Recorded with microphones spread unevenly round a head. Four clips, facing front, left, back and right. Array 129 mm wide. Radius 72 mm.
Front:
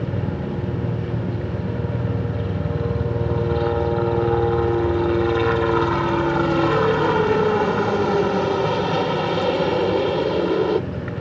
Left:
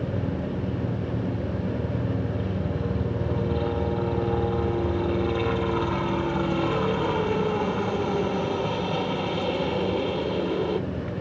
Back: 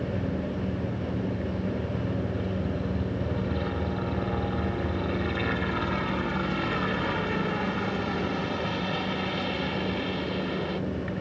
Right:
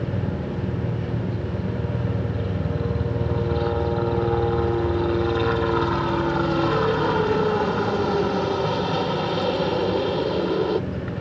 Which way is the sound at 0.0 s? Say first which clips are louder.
Right 1 dB, front 4 dB; 15° right.